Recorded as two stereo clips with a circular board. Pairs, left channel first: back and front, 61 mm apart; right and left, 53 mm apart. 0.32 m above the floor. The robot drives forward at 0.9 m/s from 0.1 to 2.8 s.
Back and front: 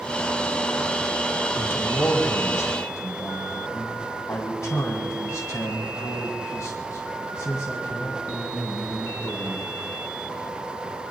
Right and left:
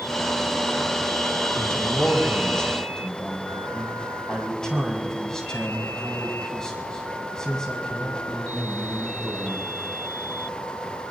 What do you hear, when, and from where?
1.5 s a man speaking: 140° right, 1.2 m; by 9.8 s 165° right, 2 m